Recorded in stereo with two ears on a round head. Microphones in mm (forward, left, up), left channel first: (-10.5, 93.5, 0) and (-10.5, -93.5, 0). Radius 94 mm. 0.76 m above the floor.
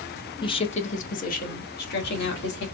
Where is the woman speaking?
20° left (ahead or behind), 0.7 m; by 2.6 s 55° left (ahead or behind), 1.8 m.